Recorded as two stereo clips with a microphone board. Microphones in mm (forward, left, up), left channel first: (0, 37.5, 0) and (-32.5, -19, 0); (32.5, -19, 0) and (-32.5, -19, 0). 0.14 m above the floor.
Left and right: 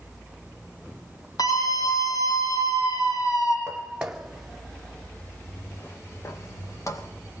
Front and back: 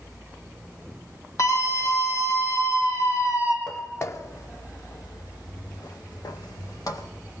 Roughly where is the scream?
Ahead left.